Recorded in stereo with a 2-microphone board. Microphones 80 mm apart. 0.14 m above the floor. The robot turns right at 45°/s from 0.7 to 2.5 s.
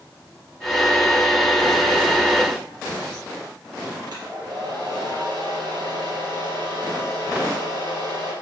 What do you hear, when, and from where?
4.1 s a hair dryer: 65° right (ahead or behind), 3.5 m